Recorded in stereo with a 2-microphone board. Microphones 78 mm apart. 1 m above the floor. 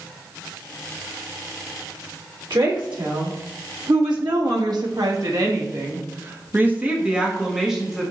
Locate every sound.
2.5 s a woman speaking: 80° right, 2.5 m; by 8.1 s centre (ahead or behind), 1.7 m